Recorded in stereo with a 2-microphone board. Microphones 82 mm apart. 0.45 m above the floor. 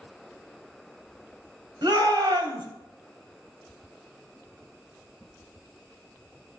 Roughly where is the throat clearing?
I don't hear throat clearing.